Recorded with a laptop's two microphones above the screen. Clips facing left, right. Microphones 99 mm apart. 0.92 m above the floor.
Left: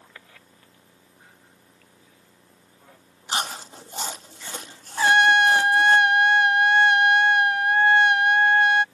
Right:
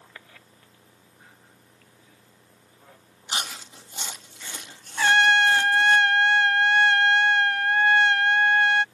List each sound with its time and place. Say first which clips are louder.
3.3 s chewing: left 5 dB; 40° left (ahead or behind)
5.0 s a trumpet: left 2 dB; 20° left (ahead or behind)